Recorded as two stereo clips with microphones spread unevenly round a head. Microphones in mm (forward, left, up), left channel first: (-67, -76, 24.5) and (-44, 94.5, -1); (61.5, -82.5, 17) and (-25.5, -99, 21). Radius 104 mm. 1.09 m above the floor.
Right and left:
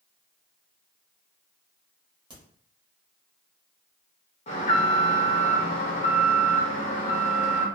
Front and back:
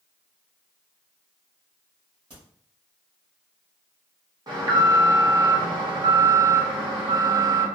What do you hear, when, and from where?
2.3 s a crack: 150° left, 1.4 m
4.5 s an alarm: 145° right, 1.1 m